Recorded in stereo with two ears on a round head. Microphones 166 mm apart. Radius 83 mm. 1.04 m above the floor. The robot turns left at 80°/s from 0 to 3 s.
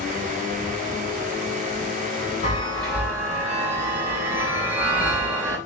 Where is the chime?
35° left, 4 m; by 5.6 s 10° right, 4 m.